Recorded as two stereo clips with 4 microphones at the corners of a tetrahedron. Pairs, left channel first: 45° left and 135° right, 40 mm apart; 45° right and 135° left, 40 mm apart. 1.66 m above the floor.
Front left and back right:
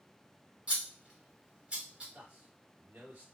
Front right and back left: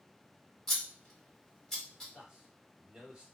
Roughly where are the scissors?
Right.